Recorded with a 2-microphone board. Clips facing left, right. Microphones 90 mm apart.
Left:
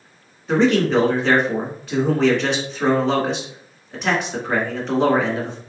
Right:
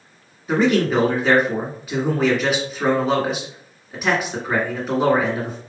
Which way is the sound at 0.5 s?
5° right (ahead or behind).